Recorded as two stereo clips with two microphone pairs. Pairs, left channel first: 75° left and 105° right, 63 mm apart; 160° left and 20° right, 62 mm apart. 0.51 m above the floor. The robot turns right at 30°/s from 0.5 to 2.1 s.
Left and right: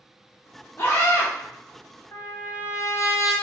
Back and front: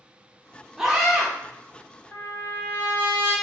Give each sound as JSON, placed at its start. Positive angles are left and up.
{"t": 0.8, "sound": "a scream", "azimuth_deg": 55, "distance_m": 0.9}
{"t": 2.1, "sound": "a trumpet", "azimuth_deg": 105, "distance_m": 1.6}